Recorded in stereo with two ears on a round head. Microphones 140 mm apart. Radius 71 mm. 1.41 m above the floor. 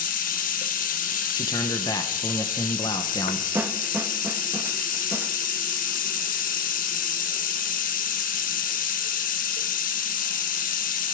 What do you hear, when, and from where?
0.0 s running water: 60° left (ahead or behind), 1.1 m
1.4 s a man speaking: 25° left (ahead or behind), 1.0 m
3.5 s a snare drum: 15° right (ahead or behind), 1.1 m